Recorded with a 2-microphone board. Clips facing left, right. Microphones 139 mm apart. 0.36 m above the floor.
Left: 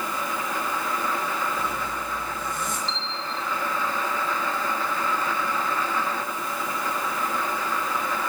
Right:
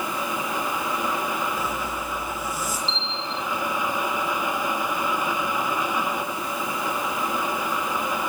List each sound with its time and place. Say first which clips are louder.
1.6 s a zipper: right 1 dB; 5° right (ahead or behind), 6.5 m
2.9 s a bell: right 1 dB; 5° left (ahead or behind), 2 m